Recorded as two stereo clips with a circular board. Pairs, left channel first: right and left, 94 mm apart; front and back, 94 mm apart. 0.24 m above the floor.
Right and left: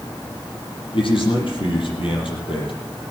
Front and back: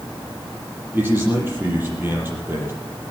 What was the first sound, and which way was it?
A man speaking, 115° right.